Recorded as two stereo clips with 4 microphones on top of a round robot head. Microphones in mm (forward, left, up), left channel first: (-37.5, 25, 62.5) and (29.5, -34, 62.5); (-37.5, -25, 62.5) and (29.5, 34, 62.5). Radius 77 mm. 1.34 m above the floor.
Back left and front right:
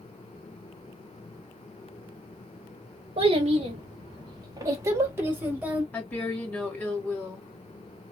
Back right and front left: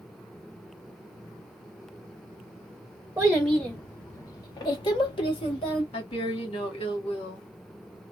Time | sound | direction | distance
3.2 | a child speaking | 35° right | 0.7 m
5.9 | a woman speaking | 150° right | 1.7 m